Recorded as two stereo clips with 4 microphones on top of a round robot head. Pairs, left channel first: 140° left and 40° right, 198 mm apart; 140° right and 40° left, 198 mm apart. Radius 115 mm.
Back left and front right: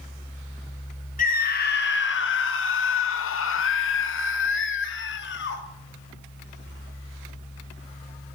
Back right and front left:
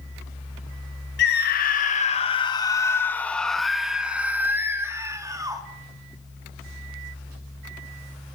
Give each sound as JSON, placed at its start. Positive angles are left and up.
{"t": 1.2, "sound": "a scream", "azimuth_deg": -170, "distance_m": 1.3}